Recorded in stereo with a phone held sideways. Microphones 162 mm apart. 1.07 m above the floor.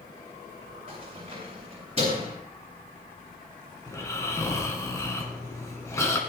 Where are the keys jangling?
40° right (ahead or behind), 7 m.